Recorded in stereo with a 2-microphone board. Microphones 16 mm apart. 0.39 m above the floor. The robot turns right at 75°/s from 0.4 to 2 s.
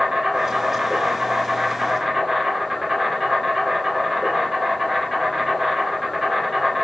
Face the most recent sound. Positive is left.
turn(degrees=0)